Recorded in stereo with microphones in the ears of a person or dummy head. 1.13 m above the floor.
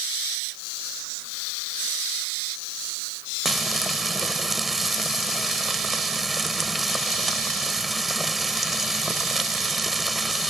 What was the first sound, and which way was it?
Frying, 5° right (ahead or behind).